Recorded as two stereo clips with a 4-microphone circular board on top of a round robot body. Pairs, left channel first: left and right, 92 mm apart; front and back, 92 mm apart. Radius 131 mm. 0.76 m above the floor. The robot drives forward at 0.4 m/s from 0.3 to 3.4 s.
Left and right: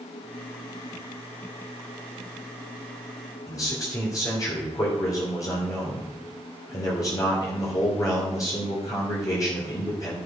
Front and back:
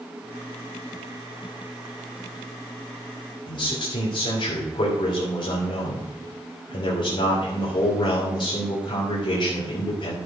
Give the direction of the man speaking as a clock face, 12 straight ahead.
11 o'clock.